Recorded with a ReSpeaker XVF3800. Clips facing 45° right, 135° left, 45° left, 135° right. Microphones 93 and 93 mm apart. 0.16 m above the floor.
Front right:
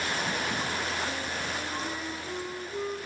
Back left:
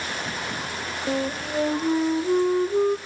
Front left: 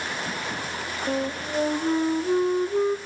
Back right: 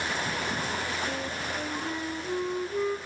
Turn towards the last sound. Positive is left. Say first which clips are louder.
# back left 8 dB, front left 6 dB
turn(degrees=100)